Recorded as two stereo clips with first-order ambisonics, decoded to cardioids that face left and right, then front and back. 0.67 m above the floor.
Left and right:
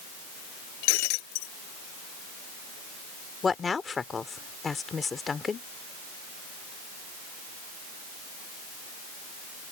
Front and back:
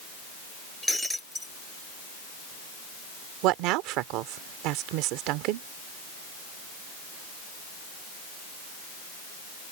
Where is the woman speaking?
160° left.